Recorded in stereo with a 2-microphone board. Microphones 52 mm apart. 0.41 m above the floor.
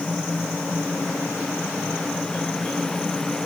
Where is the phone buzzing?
I don't hear a phone buzzing.